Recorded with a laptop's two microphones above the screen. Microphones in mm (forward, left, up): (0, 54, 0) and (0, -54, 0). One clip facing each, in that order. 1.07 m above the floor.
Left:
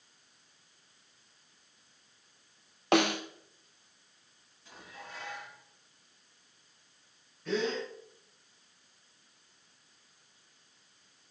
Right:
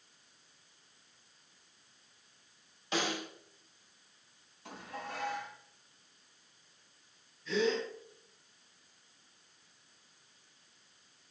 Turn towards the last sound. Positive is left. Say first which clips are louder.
# right 1 dB
turn(degrees=65)  # may be behind; listen again after turning